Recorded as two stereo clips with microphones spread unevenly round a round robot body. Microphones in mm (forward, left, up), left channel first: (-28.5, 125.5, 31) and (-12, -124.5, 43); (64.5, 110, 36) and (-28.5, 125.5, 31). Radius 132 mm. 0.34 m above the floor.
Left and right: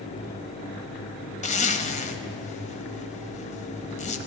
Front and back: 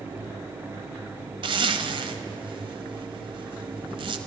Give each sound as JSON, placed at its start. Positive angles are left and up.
{"t": 1.4, "sound": "a zipper", "azimuth_deg": 155, "distance_m": 1.0}